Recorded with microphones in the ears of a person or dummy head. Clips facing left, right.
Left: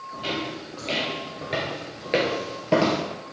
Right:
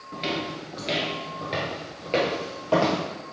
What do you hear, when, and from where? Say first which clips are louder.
0.1 s footsteps: right 1 dB; 40° right (ahead or behind), 1.4 m; by 3.0 s 35° left (ahead or behind), 1.8 m